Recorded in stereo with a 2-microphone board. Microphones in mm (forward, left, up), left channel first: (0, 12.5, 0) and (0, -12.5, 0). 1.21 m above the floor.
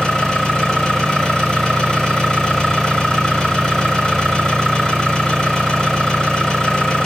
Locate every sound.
0.0 s an engine running: 35° left (ahead or behind), 4 m